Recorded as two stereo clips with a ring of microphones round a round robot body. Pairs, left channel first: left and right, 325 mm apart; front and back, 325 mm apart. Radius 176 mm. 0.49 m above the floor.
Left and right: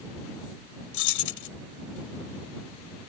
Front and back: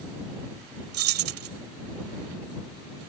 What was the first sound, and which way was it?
Keys jangling, 130° left.